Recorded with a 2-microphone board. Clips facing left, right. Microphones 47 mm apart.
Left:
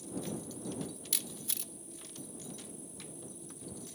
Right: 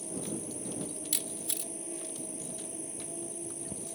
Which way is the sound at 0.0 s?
70° right (ahead or behind).